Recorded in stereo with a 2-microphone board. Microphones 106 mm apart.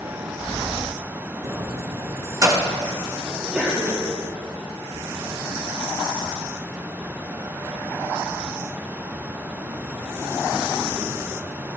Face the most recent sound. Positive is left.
turn(degrees=-15)  # may be behind; listen again after turning